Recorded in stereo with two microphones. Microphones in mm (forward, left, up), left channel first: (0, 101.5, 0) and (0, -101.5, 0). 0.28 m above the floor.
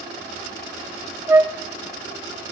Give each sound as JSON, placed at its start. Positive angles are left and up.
{"t": 1.3, "sound": "a flute", "side_deg": -10, "distance_m": 0.5}